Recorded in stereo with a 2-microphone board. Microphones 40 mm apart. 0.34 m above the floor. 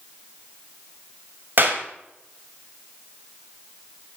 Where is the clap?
55° right (ahead or behind), 1.9 m.